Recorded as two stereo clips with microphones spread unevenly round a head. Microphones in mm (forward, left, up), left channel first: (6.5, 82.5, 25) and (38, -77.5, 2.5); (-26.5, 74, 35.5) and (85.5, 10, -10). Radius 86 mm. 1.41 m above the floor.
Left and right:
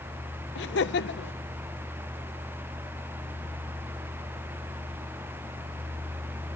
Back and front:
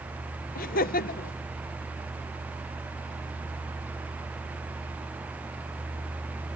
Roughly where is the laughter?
Behind left.